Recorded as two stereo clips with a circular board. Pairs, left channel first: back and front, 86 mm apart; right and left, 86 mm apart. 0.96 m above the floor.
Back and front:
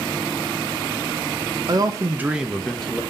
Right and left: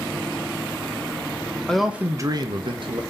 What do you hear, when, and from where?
1.7 s a man speaking: 10° right, 0.6 m; by 3.0 s 100° left, 1.0 m